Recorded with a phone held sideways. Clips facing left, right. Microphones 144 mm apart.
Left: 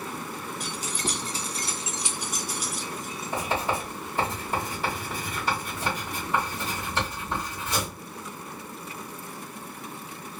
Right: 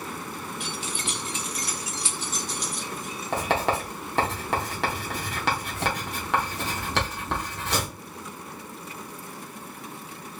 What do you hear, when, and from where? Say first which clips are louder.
0.6 s keys jangling: left 2 dB; 40° left (ahead or behind), 0.9 m; by 3.3 s centre (ahead or behind), 1.2 m
3.3 s writing: right 3 dB; 75° right (ahead or behind), 1.5 m